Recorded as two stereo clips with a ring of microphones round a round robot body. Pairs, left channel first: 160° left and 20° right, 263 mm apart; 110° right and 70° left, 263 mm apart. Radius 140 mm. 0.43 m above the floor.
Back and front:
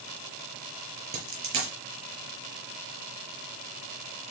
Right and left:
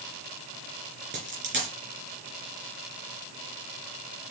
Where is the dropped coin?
15° left, 4.5 m.